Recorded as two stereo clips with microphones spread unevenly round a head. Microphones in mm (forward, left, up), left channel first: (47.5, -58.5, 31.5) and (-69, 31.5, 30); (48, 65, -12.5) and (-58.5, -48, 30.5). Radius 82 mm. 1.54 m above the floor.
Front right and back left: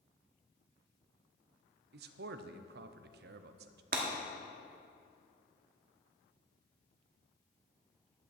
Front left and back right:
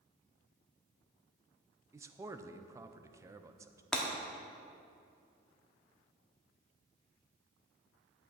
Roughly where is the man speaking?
Behind left.